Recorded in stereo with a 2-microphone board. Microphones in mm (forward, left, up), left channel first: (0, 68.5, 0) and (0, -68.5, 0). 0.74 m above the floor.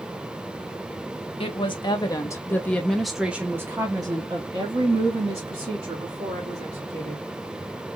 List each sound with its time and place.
1.4 s a woman speaking: 40° left (ahead or behind), 1.2 m; by 7.2 s 55° right (ahead or behind), 2.5 m